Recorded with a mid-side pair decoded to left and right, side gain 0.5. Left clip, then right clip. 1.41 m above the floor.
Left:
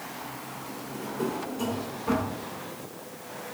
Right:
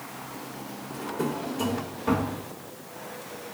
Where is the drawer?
40° right, 2.0 m.